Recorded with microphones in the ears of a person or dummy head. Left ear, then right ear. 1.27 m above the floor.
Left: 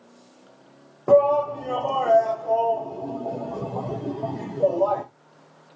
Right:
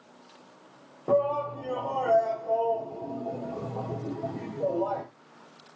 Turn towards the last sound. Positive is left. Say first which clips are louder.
# left 8 dB
turn(degrees=60)  # may be behind; listen again after turning